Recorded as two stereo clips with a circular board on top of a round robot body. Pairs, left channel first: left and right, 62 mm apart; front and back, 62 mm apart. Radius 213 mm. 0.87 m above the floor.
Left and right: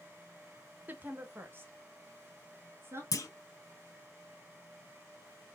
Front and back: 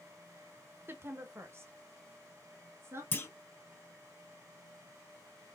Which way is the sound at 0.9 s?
140° right.